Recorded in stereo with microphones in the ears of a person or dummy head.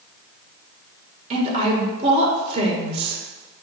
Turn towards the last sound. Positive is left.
turn(degrees=-30)  # may be behind; listen again after turning